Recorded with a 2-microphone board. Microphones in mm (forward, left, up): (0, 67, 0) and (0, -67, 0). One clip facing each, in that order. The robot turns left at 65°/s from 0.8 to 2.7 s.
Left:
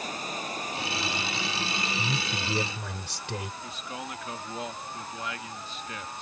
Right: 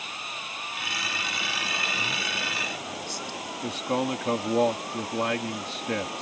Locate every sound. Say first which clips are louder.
0.0 s running water: left 5 dB; 40° left; by 6.2 s 85° right
2.0 s a man speaking: left 1 dB; 145° left; by 3.5 s 100° left
3.6 s a man speaking: right 11 dB; 65° right (ahead or behind)